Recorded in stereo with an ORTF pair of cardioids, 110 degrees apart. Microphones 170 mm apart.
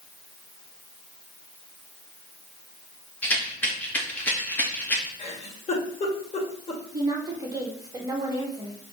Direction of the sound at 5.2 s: 40° left.